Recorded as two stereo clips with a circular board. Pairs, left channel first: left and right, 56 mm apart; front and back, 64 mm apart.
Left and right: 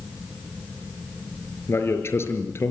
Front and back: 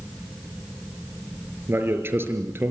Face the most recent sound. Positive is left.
turn(degrees=130)